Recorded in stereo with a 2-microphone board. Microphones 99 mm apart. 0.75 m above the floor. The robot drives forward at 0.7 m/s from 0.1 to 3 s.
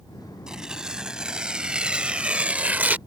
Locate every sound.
0.5 s tearing paper: 5° right (ahead or behind); by 3.0 s 15° right (ahead or behind)